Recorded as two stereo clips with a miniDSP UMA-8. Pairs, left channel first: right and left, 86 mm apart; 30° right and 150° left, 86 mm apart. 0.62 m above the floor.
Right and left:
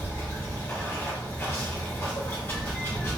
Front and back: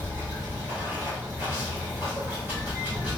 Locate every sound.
0.0 s running water: 145° right, 1.3 m